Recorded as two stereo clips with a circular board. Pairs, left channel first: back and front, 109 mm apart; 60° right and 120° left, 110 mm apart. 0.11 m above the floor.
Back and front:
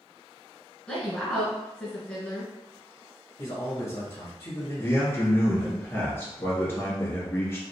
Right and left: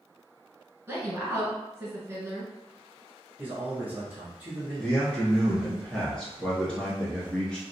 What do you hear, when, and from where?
0.9 s a woman speaking: 120° left, 1.5 m
3.4 s a man speaking: straight behind, 1.2 m
4.8 s a man speaking: 135° right, 1.4 m